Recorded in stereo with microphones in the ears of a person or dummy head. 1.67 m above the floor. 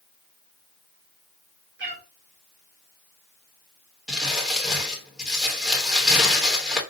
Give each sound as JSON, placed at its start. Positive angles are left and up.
{"t": 1.8, "sound": "a cat meowing", "side_deg": -60, "distance_m": 2.5}
{"t": 4.1, "sound": "crumpling", "side_deg": -5, "distance_m": 1.2}